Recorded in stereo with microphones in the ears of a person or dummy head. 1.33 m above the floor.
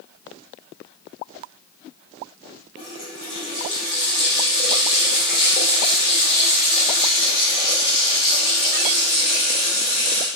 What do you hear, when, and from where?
2.8 s a running tap: 20° left (ahead or behind), 3.5 m